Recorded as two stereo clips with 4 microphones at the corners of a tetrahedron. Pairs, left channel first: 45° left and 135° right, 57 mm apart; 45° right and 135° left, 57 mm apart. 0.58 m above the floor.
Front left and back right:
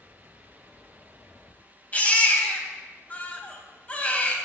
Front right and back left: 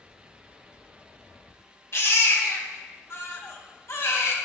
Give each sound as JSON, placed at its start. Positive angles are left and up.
{"t": 1.9, "sound": "a baby crying", "azimuth_deg": -15, "distance_m": 2.0}